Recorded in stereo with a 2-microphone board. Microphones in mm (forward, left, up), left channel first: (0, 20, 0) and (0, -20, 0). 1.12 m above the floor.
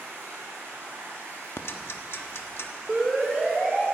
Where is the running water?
70° right (ahead or behind), 6 m.